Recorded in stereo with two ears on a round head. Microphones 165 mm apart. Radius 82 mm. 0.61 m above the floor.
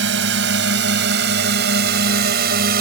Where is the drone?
70° right (ahead or behind); by 2.8 s 55° right (ahead or behind).